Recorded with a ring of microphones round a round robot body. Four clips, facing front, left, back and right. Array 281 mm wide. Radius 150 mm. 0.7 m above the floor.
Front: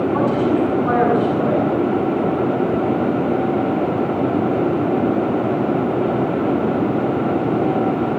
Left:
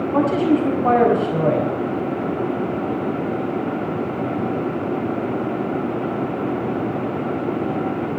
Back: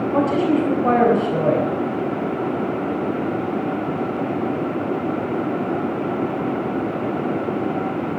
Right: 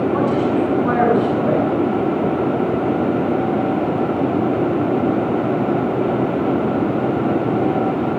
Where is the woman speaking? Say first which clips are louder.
Left 4 dB, back 1 dB; 135° left, 5 m.